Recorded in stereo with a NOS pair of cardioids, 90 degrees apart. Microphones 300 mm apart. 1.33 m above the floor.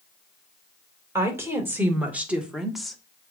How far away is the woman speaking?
About 2 m.